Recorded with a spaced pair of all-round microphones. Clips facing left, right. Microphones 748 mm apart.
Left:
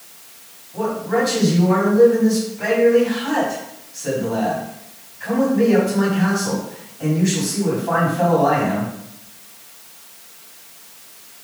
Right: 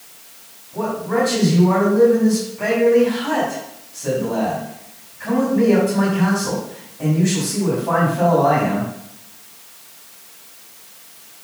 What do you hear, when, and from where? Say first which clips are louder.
0.7 s a man speaking: even; 70° right (ahead or behind), 3.5 m